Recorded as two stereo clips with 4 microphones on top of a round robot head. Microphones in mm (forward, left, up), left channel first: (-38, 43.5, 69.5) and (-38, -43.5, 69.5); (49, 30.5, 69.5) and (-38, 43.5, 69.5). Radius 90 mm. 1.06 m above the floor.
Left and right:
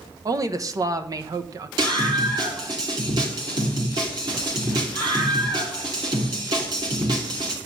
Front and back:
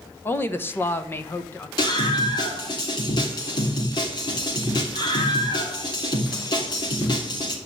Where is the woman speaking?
65° right, 1.0 m.